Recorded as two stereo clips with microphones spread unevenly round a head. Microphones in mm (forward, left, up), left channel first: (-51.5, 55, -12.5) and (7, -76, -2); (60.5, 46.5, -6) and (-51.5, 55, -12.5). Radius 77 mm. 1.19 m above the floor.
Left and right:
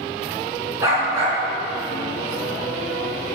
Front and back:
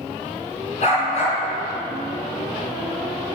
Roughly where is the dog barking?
Ahead.